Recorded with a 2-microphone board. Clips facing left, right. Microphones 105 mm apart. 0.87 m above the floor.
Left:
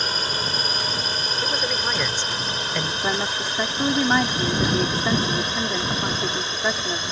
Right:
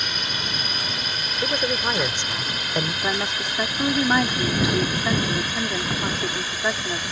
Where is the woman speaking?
5° left (ahead or behind).